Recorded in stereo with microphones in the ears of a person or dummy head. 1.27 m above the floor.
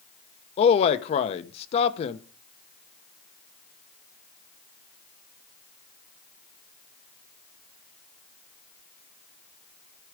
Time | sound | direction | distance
0.6 | a man speaking | 40° left (ahead or behind) | 0.9 m